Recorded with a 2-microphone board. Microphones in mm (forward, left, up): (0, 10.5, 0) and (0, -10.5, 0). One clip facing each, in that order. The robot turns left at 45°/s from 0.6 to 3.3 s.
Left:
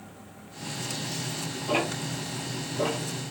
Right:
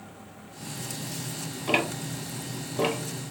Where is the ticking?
55° right (ahead or behind), 0.8 m; by 3.0 s 65° right (ahead or behind), 0.8 m.